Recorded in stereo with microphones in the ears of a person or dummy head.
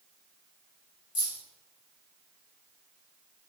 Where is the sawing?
No sawing in this recording.